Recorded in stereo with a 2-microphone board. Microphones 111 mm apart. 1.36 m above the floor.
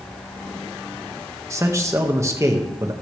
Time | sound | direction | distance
1.5 | a man speaking | 25° right (ahead or behind) | 1.7 m